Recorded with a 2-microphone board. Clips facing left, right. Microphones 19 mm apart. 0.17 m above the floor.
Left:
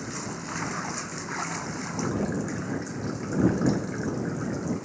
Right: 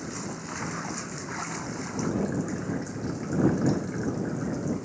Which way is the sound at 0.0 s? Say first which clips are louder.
Left 1 dB; 10° left (ahead or behind).